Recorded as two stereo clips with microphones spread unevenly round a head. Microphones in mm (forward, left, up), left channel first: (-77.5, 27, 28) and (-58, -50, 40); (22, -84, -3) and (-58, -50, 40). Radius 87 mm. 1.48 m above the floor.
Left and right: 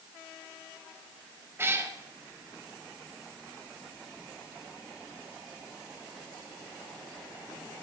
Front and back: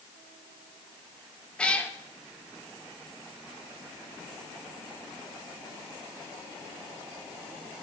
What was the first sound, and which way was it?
A cat meowing, 120° right.